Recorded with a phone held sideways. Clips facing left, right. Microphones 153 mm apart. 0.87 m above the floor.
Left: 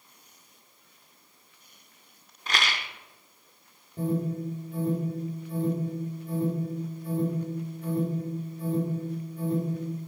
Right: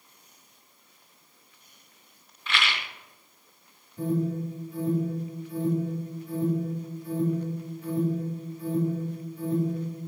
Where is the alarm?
50° left (ahead or behind), 6.5 m.